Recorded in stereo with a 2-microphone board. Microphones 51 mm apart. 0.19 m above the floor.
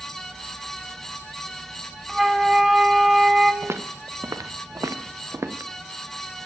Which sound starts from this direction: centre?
A flute, at 2.1 s.